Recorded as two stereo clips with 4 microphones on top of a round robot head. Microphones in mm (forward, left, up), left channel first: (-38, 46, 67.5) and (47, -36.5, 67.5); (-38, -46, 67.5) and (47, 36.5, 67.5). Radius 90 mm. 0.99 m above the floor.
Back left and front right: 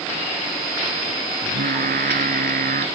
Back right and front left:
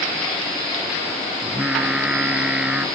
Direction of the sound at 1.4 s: 35° right.